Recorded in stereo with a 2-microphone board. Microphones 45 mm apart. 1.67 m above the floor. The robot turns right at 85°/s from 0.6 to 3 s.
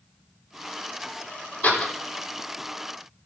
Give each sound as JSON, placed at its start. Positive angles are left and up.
{"t": 1.6, "sound": "a door slam", "side_deg": 40, "distance_m": 4.0}